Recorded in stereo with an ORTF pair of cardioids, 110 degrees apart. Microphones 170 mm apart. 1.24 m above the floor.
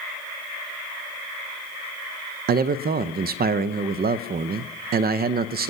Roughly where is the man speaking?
Ahead right.